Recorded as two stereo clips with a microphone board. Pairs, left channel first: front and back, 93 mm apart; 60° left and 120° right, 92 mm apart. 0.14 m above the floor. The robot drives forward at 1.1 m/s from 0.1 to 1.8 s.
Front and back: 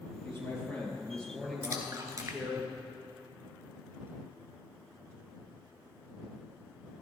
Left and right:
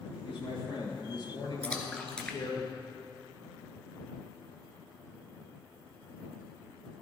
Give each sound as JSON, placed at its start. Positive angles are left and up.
{"t": 0.2, "sound": "a man speaking", "azimuth_deg": 60, "distance_m": 3.5}
{"t": 1.6, "sound": "a splash", "azimuth_deg": 130, "distance_m": 1.1}